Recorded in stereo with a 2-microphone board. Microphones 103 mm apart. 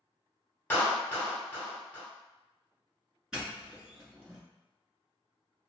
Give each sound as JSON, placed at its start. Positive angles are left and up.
{"t": 0.7, "sound": "a clap", "side_deg": 20, "distance_m": 1.0}
{"t": 3.3, "sound": "a doorbell", "side_deg": -5, "distance_m": 1.5}